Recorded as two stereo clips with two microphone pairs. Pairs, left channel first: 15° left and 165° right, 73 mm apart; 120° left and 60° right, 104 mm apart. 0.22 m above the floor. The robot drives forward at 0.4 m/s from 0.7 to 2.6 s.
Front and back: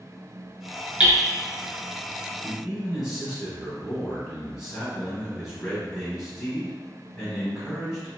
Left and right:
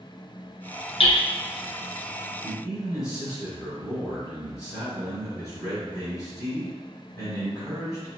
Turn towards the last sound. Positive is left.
turn(degrees=115)